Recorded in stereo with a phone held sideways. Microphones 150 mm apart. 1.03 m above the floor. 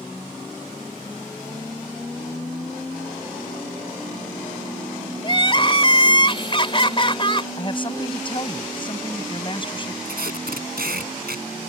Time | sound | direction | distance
5.2 | crying | 35° left (ahead or behind) | ?
7.6 | a woman speaking | 35° left (ahead or behind) | ?
10.1 | tape being pulled | 85° right | ?